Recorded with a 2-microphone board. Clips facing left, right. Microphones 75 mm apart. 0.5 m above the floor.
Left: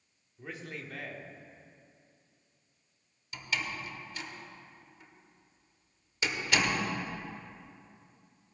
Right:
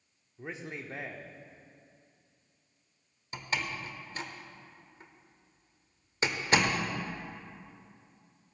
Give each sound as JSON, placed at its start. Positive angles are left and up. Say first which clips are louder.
{"t": 0.4, "sound": "a man speaking", "louder": "right 2 dB", "side_deg": -20, "distance_m": 1.0}
{"t": 3.3, "sound": "a door slam", "louder": "right 1 dB", "side_deg": -35, "distance_m": 1.0}